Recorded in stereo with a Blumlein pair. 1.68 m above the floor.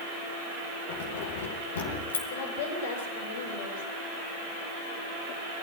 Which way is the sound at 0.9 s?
55° left.